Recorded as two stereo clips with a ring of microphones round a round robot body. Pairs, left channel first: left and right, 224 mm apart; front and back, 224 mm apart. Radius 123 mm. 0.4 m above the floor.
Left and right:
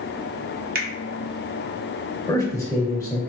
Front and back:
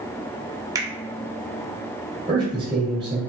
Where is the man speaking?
145° left, 1.3 m.